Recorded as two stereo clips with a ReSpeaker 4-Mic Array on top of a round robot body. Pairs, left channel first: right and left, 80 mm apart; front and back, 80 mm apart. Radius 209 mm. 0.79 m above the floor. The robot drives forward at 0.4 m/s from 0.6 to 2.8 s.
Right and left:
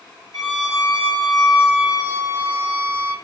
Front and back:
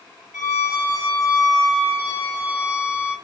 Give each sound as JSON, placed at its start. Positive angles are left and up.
{"t": 0.3, "sound": "a violin", "azimuth_deg": -120, "distance_m": 2.0}